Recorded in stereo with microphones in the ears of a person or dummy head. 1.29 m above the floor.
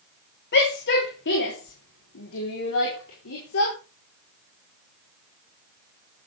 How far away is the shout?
About 3.5 m.